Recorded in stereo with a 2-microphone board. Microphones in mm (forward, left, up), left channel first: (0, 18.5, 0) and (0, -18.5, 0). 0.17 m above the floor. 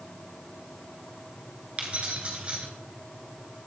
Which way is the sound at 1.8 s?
35° right (ahead or behind).